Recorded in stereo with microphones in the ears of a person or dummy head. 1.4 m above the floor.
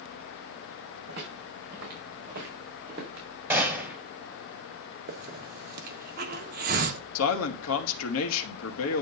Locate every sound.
1.1 s footsteps: 60° right (ahead or behind), 5 m; by 3.3 s 50° right (ahead or behind), 4 m
3.5 s a gunshot: 10° right (ahead or behind), 3 m
5.1 s a hiss: 50° right (ahead or behind), 1.5 m
7.2 s a man speaking: 75° left (ahead or behind), 2 m